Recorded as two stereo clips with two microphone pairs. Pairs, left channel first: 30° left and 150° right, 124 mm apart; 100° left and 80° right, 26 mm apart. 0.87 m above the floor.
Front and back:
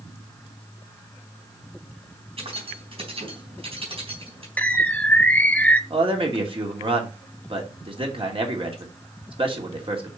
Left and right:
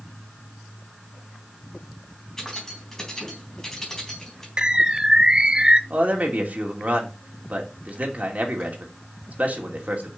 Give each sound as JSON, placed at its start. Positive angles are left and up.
{"t": 2.4, "sound": "keys jangling", "azimuth_deg": 170, "distance_m": 4.0}
{"t": 4.6, "sound": "a bird", "azimuth_deg": -45, "distance_m": 0.7}
{"t": 5.9, "sound": "a man speaking", "azimuth_deg": -110, "distance_m": 2.5}